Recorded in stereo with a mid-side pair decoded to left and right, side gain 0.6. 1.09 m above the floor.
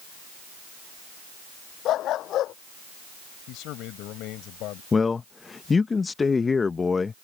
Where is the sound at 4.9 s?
25° left.